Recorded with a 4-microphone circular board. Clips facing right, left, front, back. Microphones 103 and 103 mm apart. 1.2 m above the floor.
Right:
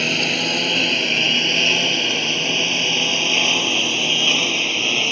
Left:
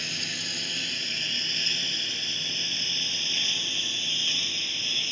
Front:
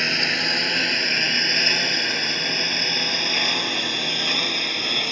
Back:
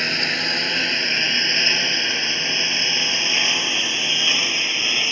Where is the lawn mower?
90° right; by 5.1 s 85° right.